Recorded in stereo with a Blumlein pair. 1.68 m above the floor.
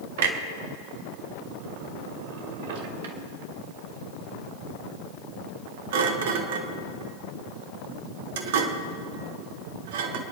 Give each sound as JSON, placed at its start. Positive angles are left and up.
{"t": 0.2, "sound": "a clunk", "azimuth_deg": -55, "distance_m": 1.3}